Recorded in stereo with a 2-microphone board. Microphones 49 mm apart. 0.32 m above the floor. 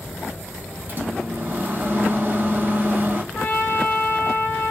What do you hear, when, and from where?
0.9 s a microwave: 40° right (ahead or behind), 1.6 m
3.3 s a trumpet: 40° left (ahead or behind), 2.5 m